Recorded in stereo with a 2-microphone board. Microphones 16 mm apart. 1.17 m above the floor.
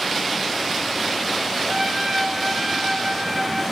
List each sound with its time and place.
1.7 s a trumpet: 30° right (ahead or behind), 2.5 m